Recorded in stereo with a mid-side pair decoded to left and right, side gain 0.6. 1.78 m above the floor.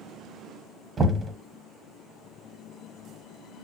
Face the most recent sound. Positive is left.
turn(degrees=-30)